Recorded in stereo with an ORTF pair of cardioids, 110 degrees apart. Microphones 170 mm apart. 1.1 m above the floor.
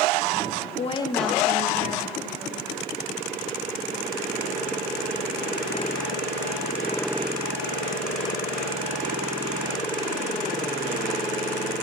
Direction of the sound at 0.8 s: 45° left.